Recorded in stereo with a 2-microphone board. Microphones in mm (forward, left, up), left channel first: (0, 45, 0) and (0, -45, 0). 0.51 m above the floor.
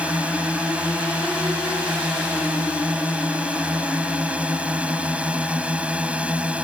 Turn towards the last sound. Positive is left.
turn(degrees=-15)  # may be behind; listen again after turning